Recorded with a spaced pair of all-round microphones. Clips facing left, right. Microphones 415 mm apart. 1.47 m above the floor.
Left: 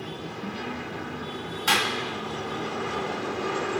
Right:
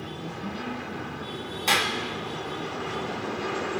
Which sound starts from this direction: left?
A clap, at 1.7 s.